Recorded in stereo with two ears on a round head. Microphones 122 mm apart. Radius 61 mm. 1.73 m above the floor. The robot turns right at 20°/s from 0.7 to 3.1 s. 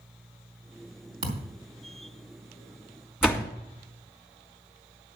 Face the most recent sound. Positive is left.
turn(degrees=-5)  # may be behind; listen again after turning